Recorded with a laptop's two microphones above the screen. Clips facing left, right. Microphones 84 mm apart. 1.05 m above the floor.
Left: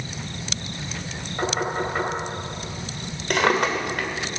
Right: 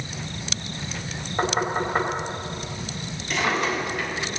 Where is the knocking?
25° right (ahead or behind), 3.5 m.